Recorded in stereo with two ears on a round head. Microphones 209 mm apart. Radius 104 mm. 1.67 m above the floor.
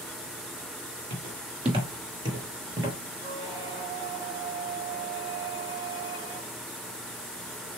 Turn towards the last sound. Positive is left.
turn(degrees=-20)  # may be behind; listen again after turning